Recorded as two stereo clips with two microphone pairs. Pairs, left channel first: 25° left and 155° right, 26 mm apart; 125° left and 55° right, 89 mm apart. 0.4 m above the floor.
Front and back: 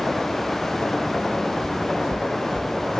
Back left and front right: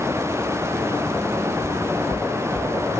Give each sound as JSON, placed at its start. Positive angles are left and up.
{"t": 1.6, "sound": "footsteps", "azimuth_deg": 175, "distance_m": 1.1}